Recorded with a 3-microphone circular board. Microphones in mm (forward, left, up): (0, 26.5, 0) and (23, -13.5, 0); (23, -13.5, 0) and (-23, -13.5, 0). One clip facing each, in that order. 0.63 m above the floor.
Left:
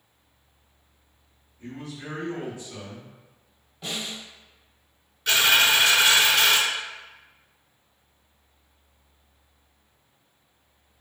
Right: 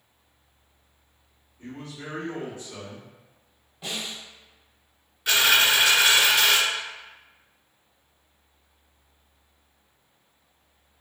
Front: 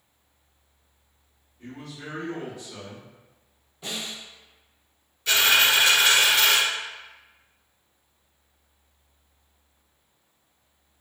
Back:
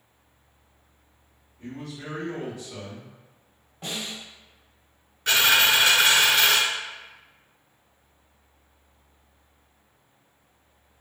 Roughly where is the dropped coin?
Behind right.